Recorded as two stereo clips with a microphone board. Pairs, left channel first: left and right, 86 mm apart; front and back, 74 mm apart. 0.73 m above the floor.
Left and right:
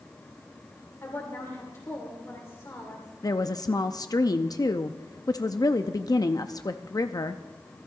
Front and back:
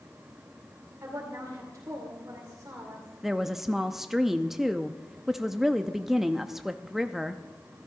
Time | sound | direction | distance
1.0 | a woman speaking | 140° left | 2 m
3.2 | a woman speaking | 95° left | 0.6 m